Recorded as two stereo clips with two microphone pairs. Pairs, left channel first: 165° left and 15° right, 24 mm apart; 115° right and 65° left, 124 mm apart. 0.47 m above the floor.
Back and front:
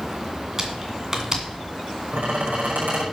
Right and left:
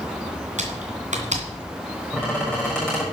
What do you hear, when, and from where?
0.6 s typing on a keyboard: 55° left, 2 m
2.1 s a squeak: 35° right, 6.5 m